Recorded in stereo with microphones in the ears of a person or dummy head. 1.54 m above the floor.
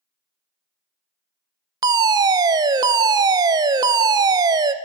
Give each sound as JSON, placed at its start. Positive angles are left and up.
{"t": 1.8, "sound": "a fire alarm", "side_deg": -20, "distance_m": 0.5}